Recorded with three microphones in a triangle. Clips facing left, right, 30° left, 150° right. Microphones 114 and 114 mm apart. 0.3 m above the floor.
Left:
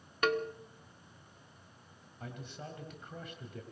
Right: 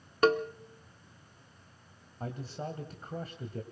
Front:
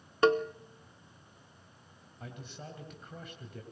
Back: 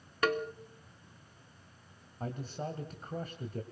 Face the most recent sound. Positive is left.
turn(degrees=-125)